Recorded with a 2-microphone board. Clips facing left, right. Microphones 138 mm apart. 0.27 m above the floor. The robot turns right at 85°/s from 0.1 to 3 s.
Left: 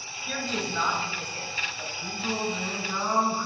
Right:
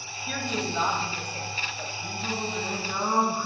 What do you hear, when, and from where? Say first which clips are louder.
0.3 s a woman speaking: right 1 dB; straight behind, 1.5 m; by 1.9 s 40° right, 1.5 m
2.0 s singing: left 3 dB; 125° left, 2 m; by 3.5 s 155° right, 2 m